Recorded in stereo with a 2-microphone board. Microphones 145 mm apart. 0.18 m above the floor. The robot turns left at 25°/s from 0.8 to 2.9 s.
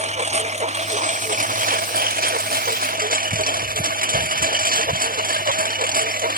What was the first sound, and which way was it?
A lawn mower, 50° right.